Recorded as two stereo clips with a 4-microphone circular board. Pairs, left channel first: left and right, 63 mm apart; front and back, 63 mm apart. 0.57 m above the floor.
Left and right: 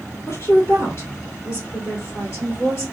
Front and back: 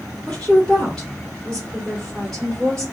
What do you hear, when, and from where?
0.3 s a woman speaking: 80° left, 1.9 m